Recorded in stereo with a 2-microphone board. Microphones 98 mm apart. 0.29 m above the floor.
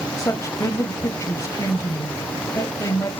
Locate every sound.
0.2 s a woman speaking: 35° left (ahead or behind), 1.2 m